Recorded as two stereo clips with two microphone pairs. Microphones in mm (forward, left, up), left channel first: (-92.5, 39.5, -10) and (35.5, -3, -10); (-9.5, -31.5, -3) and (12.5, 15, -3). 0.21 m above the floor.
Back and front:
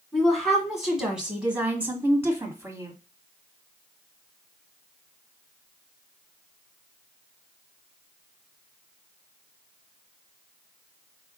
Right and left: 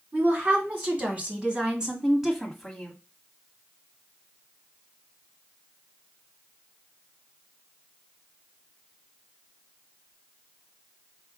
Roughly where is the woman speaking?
Left.